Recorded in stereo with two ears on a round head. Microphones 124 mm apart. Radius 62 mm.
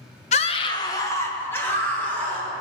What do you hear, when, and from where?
0.3 s a scream: 50° left (ahead or behind), 0.9 m; by 2.5 s 10° left (ahead or behind), 3.5 m